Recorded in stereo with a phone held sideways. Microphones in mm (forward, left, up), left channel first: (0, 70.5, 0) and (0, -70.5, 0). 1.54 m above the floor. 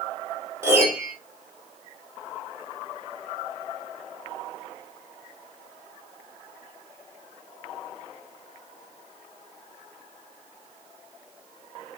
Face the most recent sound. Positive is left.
turn(degrees=-20)  # may be behind; listen again after turning